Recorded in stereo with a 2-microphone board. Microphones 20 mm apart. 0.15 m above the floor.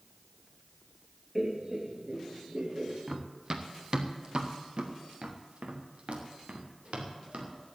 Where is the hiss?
No hiss in this recording.